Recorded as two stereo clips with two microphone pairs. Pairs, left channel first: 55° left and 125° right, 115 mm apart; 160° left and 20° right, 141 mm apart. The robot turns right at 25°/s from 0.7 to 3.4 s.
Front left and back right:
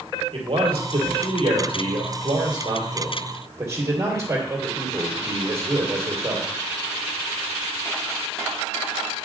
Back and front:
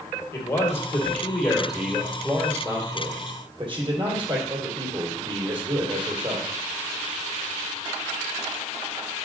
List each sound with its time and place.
0.3 s a man speaking: 130° right, 2.5 m; by 6.5 s 65° right, 2.5 m